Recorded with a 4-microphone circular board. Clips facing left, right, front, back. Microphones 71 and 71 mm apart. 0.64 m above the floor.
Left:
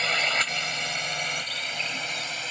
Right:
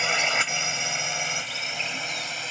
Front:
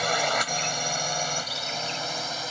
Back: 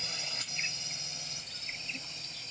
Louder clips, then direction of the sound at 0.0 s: Right 1 dB, front 19 dB; 10° right.